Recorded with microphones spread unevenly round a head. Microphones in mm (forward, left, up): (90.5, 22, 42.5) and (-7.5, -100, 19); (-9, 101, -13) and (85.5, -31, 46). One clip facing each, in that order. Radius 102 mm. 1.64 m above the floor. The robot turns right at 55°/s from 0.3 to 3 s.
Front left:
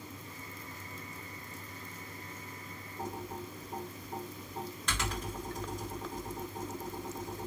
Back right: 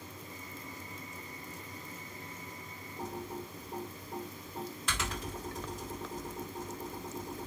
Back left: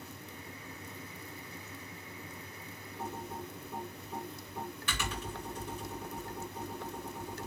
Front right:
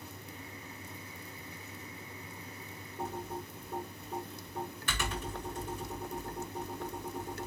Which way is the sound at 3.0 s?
40° right.